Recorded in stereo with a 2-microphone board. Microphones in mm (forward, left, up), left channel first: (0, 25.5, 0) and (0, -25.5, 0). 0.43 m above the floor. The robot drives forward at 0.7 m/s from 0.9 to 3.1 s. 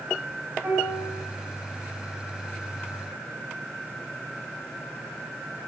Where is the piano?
55° right (ahead or behind), 3.5 m.